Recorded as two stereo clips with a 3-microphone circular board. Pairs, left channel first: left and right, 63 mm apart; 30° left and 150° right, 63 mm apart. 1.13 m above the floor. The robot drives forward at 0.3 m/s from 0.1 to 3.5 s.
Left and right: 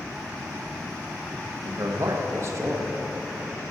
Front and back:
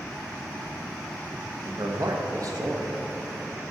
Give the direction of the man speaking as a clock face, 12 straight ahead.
4 o'clock.